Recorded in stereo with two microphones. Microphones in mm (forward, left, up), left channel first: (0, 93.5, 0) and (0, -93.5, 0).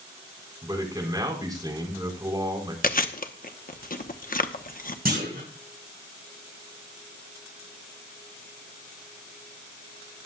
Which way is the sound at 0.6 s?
20° right (ahead or behind).